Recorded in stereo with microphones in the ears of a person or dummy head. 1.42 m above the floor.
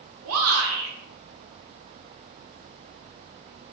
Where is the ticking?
I don't hear ticking.